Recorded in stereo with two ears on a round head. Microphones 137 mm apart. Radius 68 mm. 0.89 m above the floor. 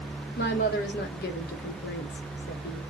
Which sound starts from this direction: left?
A woman speaking, at 0.4 s.